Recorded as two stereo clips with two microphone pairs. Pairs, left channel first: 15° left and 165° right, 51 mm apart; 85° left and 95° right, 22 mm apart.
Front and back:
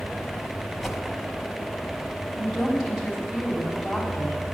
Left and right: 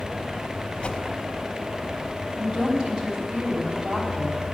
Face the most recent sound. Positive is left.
turn(degrees=-85)